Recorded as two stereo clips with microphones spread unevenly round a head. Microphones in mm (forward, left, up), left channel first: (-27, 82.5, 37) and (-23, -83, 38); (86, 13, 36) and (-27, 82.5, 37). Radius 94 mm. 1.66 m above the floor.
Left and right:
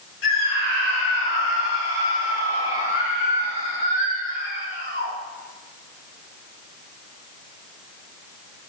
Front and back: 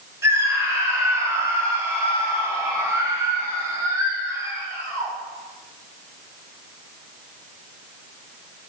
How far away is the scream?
About 9.5 m.